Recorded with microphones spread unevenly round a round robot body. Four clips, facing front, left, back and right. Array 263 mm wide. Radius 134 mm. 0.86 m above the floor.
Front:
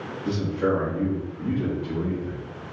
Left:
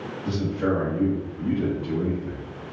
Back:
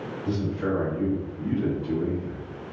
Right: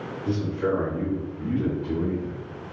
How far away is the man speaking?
About 1.1 m.